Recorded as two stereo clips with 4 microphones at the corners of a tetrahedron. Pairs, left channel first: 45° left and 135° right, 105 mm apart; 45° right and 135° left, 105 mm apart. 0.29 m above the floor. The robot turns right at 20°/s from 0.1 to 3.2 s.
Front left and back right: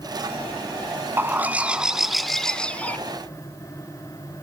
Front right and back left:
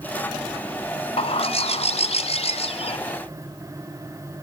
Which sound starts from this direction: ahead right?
A bird, at 1.2 s.